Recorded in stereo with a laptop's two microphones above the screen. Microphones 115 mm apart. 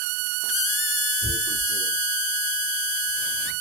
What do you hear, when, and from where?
1.2 s tearing paper: 70° right (ahead or behind), 2.5 m